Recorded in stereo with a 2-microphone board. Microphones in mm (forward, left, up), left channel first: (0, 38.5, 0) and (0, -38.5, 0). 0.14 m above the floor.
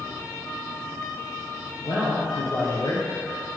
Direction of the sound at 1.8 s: 65° left (ahead or behind).